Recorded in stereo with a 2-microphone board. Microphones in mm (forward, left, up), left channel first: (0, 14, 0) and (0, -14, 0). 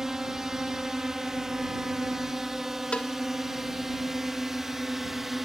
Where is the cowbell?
45° left (ahead or behind).